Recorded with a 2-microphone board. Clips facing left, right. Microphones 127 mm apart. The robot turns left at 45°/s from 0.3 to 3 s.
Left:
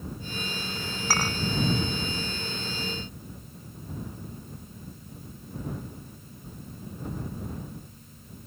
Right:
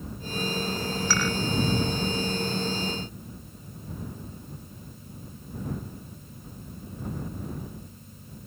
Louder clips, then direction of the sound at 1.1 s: Even; 45° left (ahead or behind).